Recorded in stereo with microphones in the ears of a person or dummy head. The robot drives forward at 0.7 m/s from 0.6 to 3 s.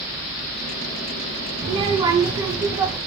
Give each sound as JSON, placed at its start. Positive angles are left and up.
{"t": 1.6, "sound": "a child speaking", "side_deg": -30, "distance_m": 0.5}